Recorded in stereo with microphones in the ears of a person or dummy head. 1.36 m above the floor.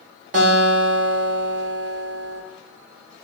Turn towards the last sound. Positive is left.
turn(degrees=-40)  # may be behind; listen again after turning